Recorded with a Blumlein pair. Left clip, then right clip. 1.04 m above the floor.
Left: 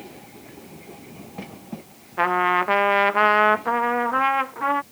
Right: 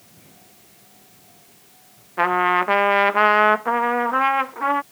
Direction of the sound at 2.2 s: 5° right.